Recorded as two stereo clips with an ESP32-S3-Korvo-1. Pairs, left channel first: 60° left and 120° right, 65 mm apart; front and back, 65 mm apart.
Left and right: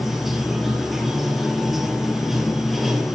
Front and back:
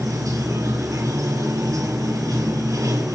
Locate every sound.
0.0 s running water: 155° left, 2.5 m